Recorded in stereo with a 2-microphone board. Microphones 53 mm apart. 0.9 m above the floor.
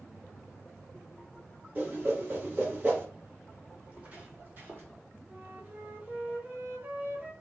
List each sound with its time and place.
1.8 s a whoosh: 35° right (ahead or behind), 1.1 m
3.8 s footsteps: 25° right (ahead or behind), 1.5 m; by 4.9 s 45° right (ahead or behind), 1.5 m
5.3 s a flute: 35° right (ahead or behind), 0.7 m